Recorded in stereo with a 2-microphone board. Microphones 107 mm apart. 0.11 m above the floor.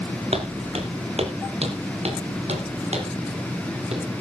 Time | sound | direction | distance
0.3 | footsteps | 80° right | 3.5 m